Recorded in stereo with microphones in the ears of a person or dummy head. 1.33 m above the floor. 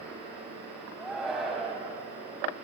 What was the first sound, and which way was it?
A shout, centre (ahead or behind).